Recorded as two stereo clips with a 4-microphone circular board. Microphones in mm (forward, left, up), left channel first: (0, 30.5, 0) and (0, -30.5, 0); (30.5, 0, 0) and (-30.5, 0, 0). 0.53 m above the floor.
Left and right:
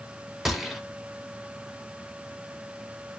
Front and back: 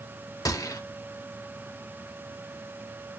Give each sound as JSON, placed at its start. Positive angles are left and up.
{"t": 0.5, "sound": "a gunshot", "azimuth_deg": -5, "distance_m": 0.8}